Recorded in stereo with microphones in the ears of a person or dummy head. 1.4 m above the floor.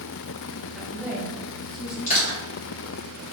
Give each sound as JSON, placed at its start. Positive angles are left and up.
{"t": 0.8, "sound": "a woman speaking", "side_deg": 0, "distance_m": 1.3}
{"t": 2.1, "sound": "crushing", "side_deg": 40, "distance_m": 1.8}